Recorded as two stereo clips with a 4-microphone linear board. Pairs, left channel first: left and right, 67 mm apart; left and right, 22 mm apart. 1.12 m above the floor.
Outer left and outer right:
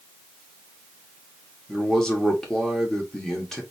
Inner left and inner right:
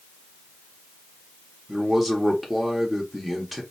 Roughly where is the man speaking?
Centre.